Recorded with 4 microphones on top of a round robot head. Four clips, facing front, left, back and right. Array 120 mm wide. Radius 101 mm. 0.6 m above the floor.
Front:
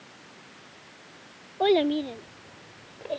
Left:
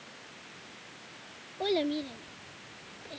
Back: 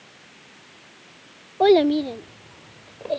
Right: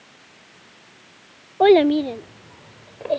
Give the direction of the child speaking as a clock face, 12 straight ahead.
4 o'clock.